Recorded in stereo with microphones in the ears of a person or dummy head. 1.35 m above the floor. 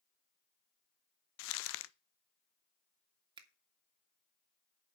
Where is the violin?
I don't hear a violin.